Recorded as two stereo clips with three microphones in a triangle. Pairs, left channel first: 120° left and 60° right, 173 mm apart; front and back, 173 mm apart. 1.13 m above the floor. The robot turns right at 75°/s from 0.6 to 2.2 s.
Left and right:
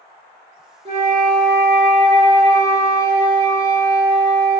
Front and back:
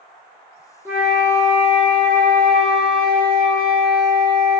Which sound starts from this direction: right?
A flute, at 0.8 s.